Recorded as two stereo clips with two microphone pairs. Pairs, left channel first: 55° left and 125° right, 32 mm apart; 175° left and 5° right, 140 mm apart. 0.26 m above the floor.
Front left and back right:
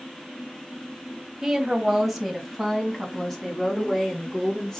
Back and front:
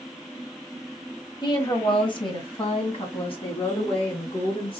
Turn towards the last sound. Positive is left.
turn(degrees=130)